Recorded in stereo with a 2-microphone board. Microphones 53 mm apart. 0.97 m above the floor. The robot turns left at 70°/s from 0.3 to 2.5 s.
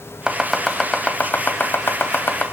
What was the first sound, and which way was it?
Chopping, 15° right (ahead or behind).